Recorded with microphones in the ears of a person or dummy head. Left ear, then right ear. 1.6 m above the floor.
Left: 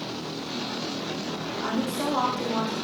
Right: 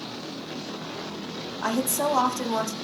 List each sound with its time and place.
1.6 s a woman speaking: 60° right (ahead or behind), 0.6 m